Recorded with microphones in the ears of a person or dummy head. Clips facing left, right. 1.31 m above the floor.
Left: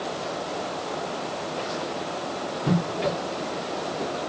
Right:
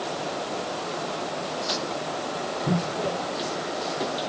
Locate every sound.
Only background noise.